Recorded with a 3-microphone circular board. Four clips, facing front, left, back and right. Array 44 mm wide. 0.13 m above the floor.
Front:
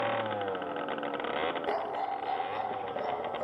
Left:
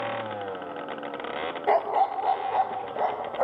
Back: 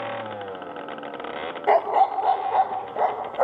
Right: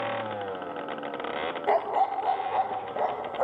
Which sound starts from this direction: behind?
A dog barking, at 1.7 s.